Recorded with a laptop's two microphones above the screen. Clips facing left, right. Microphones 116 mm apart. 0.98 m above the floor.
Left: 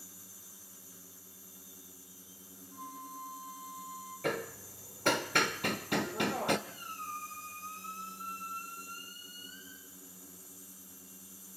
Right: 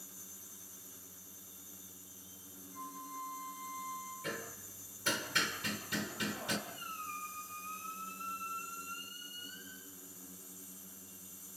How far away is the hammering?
About 1.2 m.